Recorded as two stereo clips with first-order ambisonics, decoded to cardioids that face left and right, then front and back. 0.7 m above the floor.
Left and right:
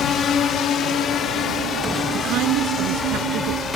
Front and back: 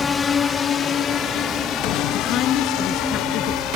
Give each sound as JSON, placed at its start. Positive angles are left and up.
{"t": 0.0, "sound": "a drone", "azimuth_deg": 50}
{"t": 2.1, "sound": "a woman speaking", "azimuth_deg": -50}